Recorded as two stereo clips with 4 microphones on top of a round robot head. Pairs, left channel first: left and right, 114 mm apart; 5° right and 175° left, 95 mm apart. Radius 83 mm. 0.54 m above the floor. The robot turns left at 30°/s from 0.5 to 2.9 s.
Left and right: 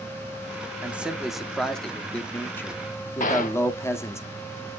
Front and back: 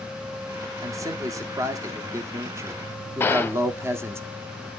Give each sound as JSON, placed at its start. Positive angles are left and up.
{"t": 0.8, "sound": "a man speaking", "azimuth_deg": -160, "distance_m": 1.1}
{"t": 3.2, "sound": "a gunshot", "azimuth_deg": 60, "distance_m": 0.5}